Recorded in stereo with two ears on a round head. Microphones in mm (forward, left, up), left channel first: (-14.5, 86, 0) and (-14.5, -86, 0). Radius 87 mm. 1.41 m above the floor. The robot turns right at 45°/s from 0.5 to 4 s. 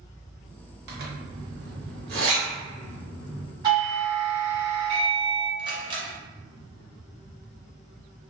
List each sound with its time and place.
0.9 s a zipper: 55° right (ahead or behind), 1.1 m; by 3.5 s 10° right (ahead or behind), 1.1 m
3.6 s a doorbell: 25° right (ahead or behind), 1.7 m; by 5.5 s 35° right (ahead or behind), 1.7 m
5.6 s a camera shutter: 25° right (ahead or behind), 0.8 m